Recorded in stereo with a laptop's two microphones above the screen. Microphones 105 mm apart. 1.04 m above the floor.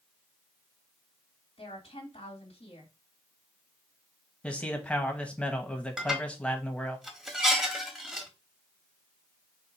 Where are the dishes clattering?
5° right (ahead or behind), 1.4 m.